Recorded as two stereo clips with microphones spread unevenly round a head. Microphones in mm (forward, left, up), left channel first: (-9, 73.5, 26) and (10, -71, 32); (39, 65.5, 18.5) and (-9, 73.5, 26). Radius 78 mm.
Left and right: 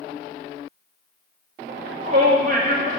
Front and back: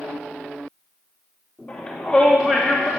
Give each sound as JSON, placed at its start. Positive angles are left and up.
{"t": 1.7, "sound": "a shout", "azimuth_deg": -75, "distance_m": 2.5}